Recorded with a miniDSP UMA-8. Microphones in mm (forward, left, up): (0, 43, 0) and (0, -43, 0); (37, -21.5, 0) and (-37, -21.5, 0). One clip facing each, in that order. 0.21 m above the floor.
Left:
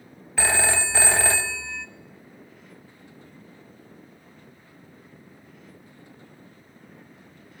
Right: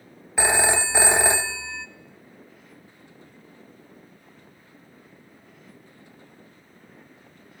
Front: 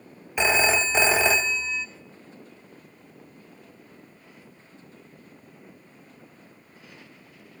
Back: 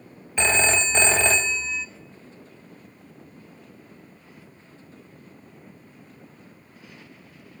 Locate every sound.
0.4 s a phone ringing: 60° right, 0.6 m